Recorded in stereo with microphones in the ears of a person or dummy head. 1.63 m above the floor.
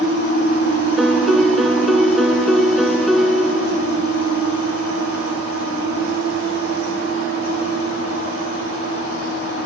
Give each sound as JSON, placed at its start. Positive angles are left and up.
{"t": 1.0, "sound": "a piano", "side_deg": -5}